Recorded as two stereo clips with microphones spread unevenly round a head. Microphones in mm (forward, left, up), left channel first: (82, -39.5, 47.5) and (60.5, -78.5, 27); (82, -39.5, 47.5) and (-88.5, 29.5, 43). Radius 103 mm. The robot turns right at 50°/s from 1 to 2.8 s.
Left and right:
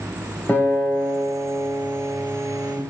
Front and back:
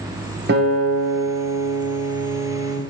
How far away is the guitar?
About 0.8 m.